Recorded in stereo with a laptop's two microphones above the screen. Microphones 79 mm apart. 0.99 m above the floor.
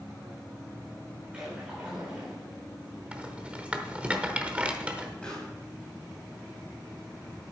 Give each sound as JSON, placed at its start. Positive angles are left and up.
{"t": 1.3, "sound": "a splash", "side_deg": -15, "distance_m": 3.5}
{"t": 3.1, "sound": "a rattle", "side_deg": -15, "distance_m": 0.9}
{"t": 5.2, "sound": "a pop", "side_deg": 15, "distance_m": 3.0}